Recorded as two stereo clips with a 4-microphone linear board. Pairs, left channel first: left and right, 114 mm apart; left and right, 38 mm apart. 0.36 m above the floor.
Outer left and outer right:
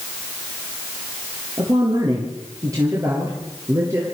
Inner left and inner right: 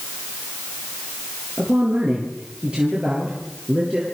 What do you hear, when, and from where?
1.6 s a woman speaking: 35° right (ahead or behind), 6 m; by 4.0 s 25° right (ahead or behind), 7 m